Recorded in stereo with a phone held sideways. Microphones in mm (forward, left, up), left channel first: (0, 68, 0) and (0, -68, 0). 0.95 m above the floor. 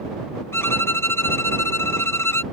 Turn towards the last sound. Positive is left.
turn(degrees=15)  # may be behind; listen again after turning